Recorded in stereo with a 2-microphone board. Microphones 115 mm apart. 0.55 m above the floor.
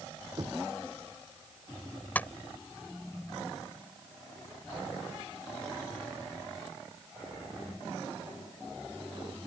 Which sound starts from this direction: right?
Knocking, at 0.4 s.